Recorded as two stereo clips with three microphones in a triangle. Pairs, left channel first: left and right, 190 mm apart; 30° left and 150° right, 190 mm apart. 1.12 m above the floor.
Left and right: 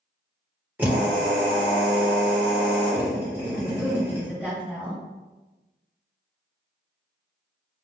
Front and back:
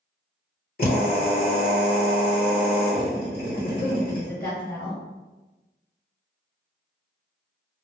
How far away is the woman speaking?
About 1.2 m.